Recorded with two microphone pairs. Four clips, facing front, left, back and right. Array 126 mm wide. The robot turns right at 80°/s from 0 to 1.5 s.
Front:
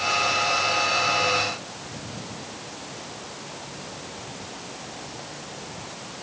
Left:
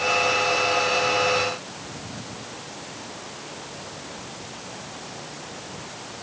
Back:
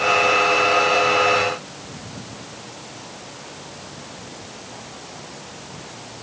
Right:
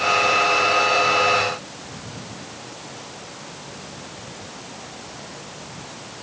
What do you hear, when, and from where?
Only background noise.